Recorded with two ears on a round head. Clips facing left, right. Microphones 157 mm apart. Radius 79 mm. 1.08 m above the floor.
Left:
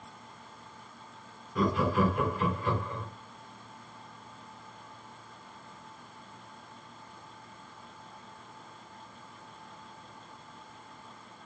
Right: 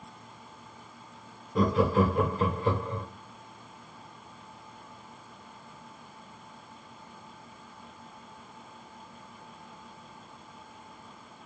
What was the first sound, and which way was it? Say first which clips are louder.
Laughter: right 3 dB; 25° right (ahead or behind).